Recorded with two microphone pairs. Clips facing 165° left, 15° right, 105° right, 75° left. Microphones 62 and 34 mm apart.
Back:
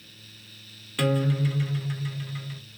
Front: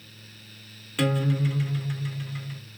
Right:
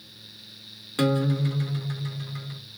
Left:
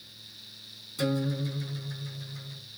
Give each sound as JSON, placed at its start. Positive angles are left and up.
{"t": 1.0, "sound": "a guitar", "azimuth_deg": -105, "distance_m": 0.5}